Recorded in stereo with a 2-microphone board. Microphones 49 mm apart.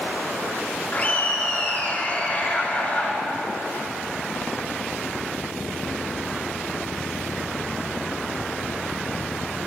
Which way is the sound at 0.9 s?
30° left (ahead or behind).